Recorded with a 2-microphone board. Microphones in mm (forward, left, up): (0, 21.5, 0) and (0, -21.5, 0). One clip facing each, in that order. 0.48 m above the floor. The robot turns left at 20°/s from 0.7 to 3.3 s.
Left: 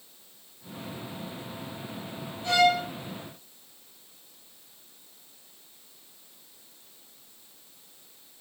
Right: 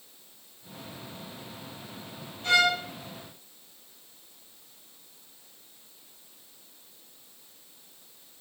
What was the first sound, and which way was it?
A violin, 55° right (ahead or behind).